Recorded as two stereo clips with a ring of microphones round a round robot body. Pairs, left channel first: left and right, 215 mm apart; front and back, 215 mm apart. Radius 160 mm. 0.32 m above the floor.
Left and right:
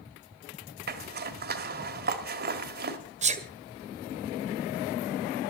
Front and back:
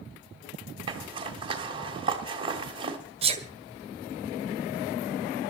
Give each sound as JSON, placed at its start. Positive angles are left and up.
{"t": 0.9, "sound": "a zipper", "azimuth_deg": -115, "distance_m": 1.5}
{"t": 3.2, "sound": "a sneeze", "azimuth_deg": -130, "distance_m": 1.7}